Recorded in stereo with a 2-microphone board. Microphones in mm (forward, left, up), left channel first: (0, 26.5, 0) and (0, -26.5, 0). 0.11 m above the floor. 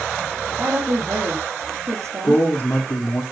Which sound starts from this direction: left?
A man speaking, at 2.2 s.